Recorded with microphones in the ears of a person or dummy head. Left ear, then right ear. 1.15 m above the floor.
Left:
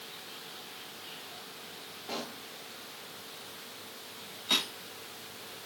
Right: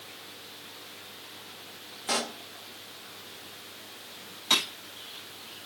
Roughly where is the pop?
Right.